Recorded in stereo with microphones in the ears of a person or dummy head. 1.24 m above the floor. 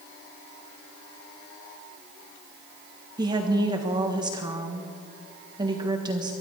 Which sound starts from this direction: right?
A woman speaking, at 3.2 s.